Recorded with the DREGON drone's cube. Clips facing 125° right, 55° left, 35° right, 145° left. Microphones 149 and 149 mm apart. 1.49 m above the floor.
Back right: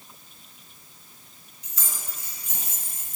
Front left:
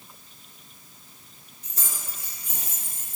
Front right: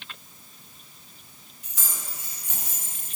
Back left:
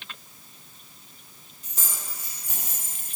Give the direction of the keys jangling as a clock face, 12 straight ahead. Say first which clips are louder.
Front left 1 dB, even; 9 o'clock.